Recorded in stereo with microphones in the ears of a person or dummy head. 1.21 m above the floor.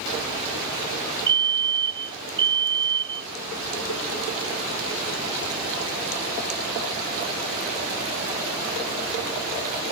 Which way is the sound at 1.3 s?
25° right (ahead or behind).